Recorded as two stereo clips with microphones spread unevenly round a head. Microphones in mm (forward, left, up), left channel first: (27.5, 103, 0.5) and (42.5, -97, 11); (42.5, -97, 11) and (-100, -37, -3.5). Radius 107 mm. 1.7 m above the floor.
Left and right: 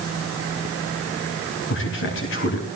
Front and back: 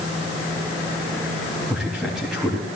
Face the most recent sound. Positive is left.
turn(degrees=70)